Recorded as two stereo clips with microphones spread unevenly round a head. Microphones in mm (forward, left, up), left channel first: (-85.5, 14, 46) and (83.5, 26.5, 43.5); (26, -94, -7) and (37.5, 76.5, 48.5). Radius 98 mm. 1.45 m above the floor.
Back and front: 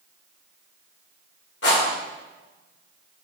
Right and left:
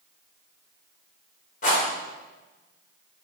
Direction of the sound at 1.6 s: 155° right.